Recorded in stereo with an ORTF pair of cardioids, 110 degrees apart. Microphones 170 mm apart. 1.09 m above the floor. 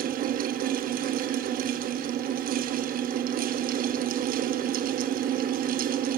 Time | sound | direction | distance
0.0 | a fan | 60° right | 0.9 m